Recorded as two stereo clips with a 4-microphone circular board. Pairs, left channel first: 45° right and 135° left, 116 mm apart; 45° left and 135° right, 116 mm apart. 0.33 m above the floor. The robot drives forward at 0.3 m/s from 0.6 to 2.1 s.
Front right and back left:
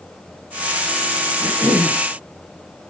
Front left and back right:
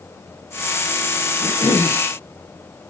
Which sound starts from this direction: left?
A cough, at 1.4 s.